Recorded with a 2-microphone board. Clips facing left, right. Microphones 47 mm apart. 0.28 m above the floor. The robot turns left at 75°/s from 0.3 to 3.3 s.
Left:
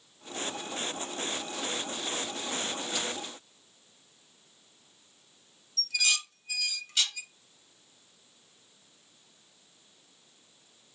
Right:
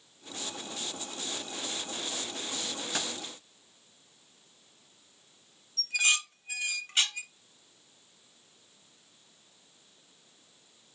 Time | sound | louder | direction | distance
2.9 | keys jangling | right 1 dB | 75° right (ahead or behind) | 2.5 m
5.8 | dishes clattering | right 2 dB | 35° right (ahead or behind) | 0.7 m